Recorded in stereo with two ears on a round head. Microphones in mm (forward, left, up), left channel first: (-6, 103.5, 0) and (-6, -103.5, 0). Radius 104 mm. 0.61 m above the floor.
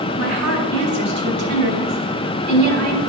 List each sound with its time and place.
0.2 s a woman speaking: 50° right (ahead or behind), 4 m